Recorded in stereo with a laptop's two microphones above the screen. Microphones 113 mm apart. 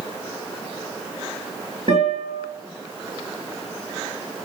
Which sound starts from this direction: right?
A guitar, at 1.9 s.